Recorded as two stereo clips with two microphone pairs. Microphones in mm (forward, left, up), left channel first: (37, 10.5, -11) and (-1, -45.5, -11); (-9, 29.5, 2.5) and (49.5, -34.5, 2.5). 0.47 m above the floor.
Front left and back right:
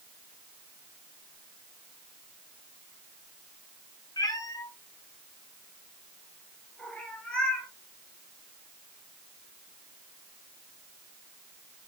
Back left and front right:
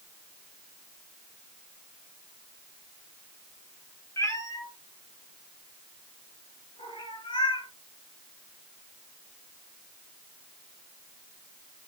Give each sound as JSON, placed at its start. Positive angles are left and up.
{"t": 4.2, "sound": "a cat meowing", "azimuth_deg": 80, "distance_m": 2.0}